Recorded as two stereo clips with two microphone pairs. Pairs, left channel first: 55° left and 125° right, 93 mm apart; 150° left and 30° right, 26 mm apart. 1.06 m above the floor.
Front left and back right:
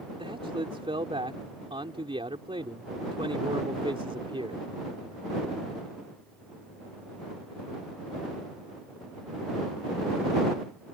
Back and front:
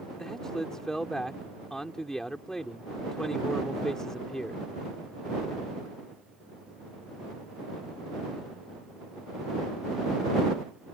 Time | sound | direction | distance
0.2 | a man speaking | 140° right | ?